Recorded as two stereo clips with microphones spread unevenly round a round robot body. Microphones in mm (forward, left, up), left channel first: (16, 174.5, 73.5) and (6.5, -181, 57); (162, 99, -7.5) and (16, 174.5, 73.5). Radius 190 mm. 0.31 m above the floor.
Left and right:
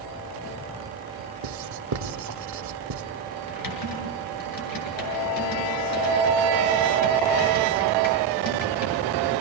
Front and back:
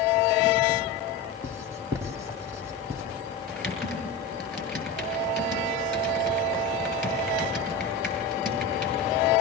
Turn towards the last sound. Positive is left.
turn(degrees=60)